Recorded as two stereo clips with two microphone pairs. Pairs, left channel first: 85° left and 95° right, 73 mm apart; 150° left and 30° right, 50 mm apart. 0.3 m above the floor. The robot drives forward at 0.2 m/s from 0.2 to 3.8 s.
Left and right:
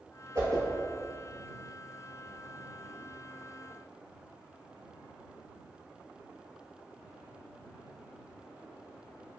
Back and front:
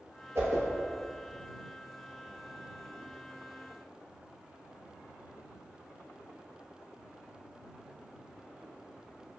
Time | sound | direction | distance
0.3 | a whoosh | 50° right | 0.8 m